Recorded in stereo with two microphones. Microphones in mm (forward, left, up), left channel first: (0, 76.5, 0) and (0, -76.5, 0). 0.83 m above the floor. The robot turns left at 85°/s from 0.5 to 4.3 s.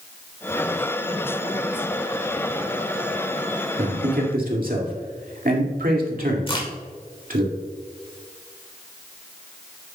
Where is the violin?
I don't hear a violin.